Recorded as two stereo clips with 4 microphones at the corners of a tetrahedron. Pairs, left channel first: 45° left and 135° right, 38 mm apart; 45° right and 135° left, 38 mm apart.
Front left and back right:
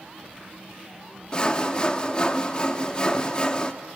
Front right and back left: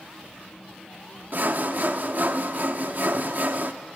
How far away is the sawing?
About 0.9 m.